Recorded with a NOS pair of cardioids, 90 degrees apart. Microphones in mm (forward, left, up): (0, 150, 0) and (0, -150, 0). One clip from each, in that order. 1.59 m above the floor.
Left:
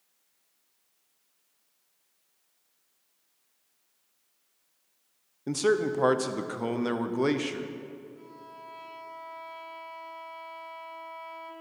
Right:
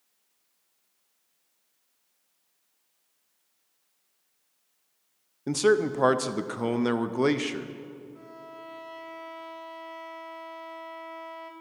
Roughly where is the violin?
Ahead right.